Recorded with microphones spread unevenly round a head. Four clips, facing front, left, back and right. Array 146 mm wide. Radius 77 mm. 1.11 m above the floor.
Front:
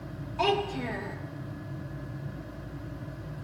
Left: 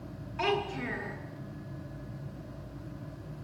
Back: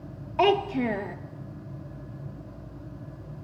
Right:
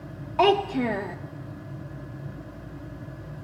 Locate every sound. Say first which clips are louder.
0.4 s a child speaking: right 10 dB, back 5 dB; 125° right, 1.9 m